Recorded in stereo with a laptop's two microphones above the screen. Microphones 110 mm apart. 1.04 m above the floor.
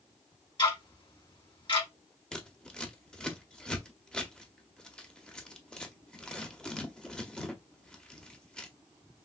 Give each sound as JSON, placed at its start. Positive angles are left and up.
{"t": 0.6, "sound": "ticking", "side_deg": 45, "distance_m": 2.0}
{"t": 2.3, "sound": "scissors", "side_deg": 10, "distance_m": 0.6}